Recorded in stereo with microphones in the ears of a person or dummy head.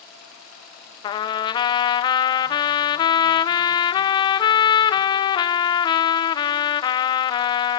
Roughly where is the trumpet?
Left.